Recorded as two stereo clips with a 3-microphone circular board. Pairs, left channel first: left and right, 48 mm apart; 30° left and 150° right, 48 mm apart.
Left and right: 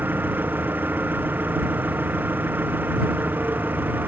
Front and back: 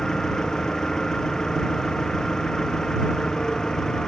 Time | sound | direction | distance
0.0 | an engine running | 45° right | ?